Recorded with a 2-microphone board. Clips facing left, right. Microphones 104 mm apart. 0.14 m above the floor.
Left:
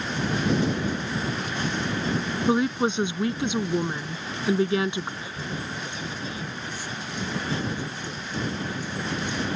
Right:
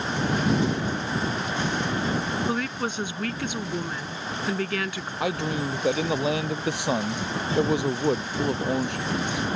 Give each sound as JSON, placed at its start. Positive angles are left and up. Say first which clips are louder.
{"t": 2.5, "sound": "a woman speaking", "louder": "left 5 dB", "side_deg": 20}
{"t": 5.2, "sound": "a man speaking", "louder": "right 8 dB", "side_deg": -65}